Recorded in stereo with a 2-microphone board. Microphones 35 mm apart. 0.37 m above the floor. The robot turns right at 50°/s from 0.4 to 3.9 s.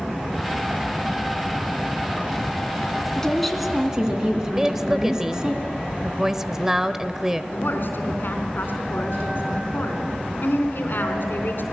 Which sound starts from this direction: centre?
A woman speaking, at 4.5 s.